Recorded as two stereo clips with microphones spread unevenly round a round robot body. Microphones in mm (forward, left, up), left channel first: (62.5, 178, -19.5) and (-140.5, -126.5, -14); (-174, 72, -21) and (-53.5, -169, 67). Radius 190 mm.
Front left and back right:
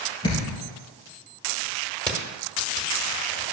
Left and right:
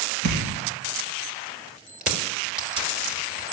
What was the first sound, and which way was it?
A thud, 25° right.